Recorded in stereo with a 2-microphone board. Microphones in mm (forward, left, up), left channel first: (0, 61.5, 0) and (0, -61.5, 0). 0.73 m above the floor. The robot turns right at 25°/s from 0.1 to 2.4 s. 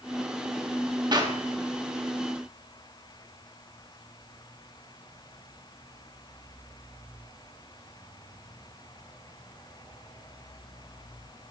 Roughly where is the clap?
Right.